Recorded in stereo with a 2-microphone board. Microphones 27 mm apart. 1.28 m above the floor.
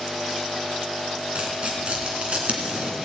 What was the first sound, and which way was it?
Tearing paper, 45° right (ahead or behind).